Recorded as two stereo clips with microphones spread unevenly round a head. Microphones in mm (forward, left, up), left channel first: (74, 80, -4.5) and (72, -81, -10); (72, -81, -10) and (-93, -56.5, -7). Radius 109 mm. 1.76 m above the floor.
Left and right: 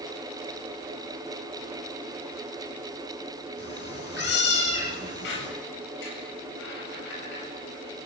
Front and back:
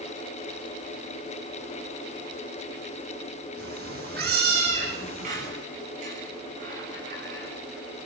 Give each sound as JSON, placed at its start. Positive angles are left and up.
{"t": 3.6, "sound": "a cat meowing", "azimuth_deg": 125, "distance_m": 9.0}
{"t": 5.2, "sound": "a squeak", "azimuth_deg": 115, "distance_m": 7.5}